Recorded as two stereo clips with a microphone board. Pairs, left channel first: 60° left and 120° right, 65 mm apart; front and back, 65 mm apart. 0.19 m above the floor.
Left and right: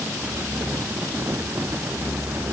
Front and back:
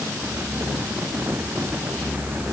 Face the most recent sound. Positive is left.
No sound to turn to.